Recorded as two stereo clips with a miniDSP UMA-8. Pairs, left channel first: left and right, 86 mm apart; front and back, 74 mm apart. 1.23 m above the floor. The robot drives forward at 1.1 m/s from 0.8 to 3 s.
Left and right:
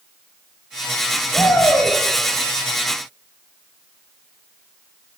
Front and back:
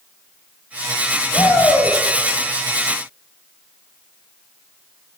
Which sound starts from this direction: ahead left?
A shout, at 1.3 s.